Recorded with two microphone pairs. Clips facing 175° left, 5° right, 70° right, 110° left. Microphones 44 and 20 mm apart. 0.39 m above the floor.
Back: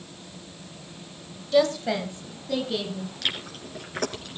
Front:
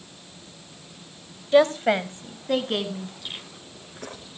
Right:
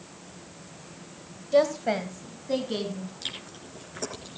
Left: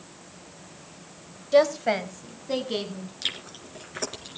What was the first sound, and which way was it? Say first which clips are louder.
A woman speaking: front 4 dB, left 2 dB; 45° left.